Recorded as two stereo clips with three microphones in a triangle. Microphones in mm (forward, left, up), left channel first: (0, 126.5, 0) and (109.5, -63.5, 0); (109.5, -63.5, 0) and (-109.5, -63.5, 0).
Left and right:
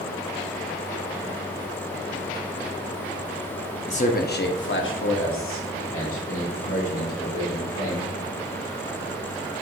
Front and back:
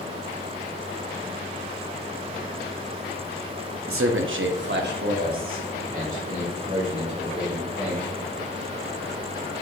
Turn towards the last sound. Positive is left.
turn(degrees=120)